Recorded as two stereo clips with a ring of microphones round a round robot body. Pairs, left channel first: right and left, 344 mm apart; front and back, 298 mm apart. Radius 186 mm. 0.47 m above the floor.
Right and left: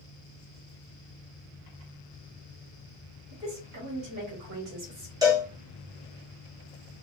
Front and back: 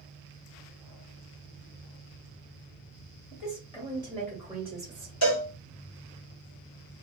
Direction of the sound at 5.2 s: 10° left.